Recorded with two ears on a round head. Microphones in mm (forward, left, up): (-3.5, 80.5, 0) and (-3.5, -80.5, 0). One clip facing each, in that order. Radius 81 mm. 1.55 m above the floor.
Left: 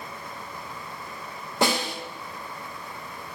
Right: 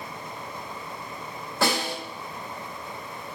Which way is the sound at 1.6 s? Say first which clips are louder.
Left 1 dB; 20° left (ahead or behind).